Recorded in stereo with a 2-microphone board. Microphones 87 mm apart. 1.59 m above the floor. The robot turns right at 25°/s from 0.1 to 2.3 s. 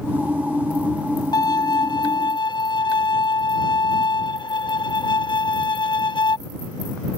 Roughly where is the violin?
Left.